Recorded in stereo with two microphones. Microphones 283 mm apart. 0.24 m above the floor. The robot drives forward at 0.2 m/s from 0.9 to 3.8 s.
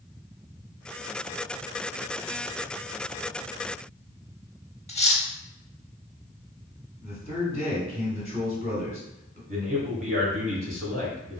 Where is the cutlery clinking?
25° left (ahead or behind), 0.5 m.